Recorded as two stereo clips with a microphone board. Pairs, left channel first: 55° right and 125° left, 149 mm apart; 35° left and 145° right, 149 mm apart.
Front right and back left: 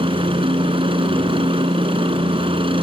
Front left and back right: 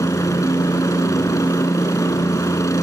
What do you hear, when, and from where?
0.0 s a helicopter: 95° left